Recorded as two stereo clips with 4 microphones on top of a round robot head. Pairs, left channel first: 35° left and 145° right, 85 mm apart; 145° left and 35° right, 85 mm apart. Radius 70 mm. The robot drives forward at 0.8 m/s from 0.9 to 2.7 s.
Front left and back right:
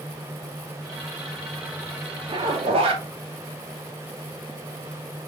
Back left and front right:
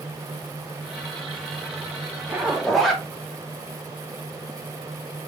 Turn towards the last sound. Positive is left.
turn(degrees=-125)